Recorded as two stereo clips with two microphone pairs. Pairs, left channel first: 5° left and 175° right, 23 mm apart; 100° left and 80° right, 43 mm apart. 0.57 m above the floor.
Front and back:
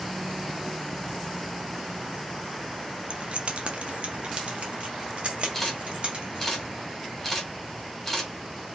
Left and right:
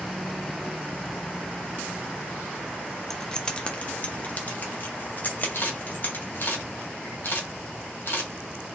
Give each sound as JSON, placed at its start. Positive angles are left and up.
{"t": 3.1, "sound": "keys jangling", "azimuth_deg": 180, "distance_m": 0.6}
{"t": 5.5, "sound": "a camera shutter", "azimuth_deg": 85, "distance_m": 2.0}